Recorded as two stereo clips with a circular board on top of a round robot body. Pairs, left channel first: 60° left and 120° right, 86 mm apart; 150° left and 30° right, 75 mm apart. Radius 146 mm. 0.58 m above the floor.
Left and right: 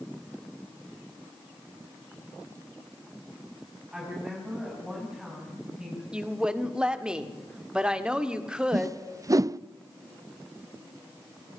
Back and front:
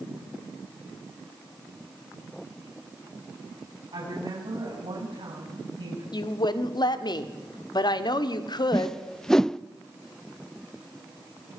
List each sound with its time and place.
3.9 s a woman speaking: 40° right, 6.5 m
6.1 s a woman speaking: 160° left, 1.8 m
8.7 s a whoosh: 130° right, 0.6 m